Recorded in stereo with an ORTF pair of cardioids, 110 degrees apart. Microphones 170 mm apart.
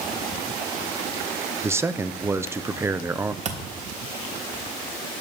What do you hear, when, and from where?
1.6 s a man speaking: 15° right, 0.9 m
3.5 s a thud: 45° right, 3.5 m